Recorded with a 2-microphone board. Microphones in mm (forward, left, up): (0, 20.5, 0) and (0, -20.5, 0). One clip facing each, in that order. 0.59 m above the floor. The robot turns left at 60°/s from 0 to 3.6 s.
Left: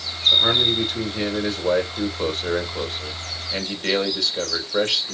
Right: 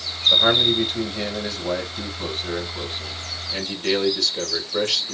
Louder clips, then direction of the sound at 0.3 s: Right 1 dB; 145° right.